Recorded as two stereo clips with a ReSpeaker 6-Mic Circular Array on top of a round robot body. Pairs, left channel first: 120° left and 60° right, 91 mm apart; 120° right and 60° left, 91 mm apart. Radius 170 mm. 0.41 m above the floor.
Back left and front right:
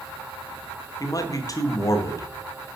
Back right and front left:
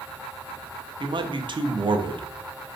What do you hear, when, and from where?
1.0 s a man speaking: 75° left, 1.4 m